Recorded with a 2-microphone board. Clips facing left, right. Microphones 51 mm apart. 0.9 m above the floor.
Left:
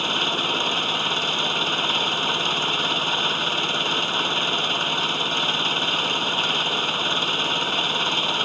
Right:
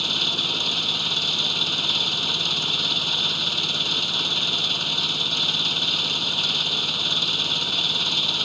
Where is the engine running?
35° left (ahead or behind).